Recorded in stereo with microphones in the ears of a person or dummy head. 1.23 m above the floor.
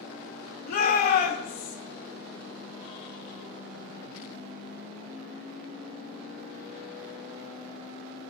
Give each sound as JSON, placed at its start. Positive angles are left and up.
{"t": 0.7, "sound": "a shout", "side_deg": 50, "distance_m": 3.5}